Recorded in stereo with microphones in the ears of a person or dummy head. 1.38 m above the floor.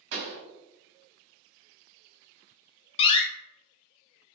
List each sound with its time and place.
0.1 s a pop: 80° right, 1.3 m
3.0 s a door slam: 35° left (ahead or behind), 0.5 m